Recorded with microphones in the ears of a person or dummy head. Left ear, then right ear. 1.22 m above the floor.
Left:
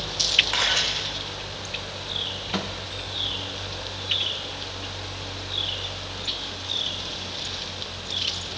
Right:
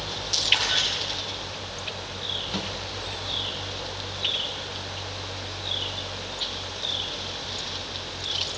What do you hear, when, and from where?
0.5 s a camera shutter: 50° left (ahead or behind), 4 m
2.5 s a microwave: 20° left (ahead or behind), 0.9 m